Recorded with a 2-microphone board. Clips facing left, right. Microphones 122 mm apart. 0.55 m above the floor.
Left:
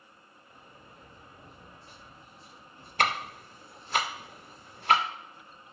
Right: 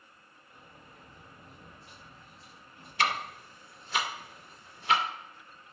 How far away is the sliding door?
About 2.5 m.